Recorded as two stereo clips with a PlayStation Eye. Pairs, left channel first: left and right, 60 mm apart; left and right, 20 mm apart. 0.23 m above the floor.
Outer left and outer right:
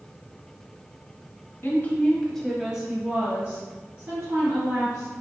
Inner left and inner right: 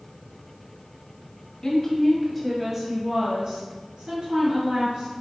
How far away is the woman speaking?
About 1.2 m.